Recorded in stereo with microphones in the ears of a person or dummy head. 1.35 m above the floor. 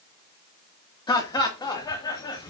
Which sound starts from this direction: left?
Laughter, at 1.1 s.